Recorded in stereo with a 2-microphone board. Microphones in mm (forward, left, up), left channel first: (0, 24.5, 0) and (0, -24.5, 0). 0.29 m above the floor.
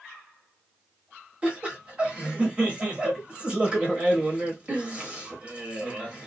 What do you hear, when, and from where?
1.4 s laughter: 25° right (ahead or behind), 1.0 m